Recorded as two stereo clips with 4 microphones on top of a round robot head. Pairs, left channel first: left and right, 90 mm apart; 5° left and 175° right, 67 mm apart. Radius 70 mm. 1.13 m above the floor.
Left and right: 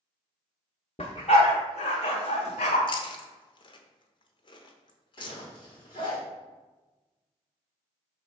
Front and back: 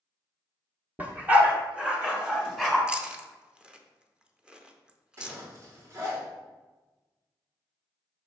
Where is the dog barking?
125° left, 0.9 m; by 2.8 s 100° left, 1.6 m.